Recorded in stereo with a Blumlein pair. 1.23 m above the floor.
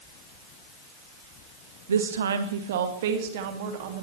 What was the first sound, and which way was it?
A woman speaking, 70° right.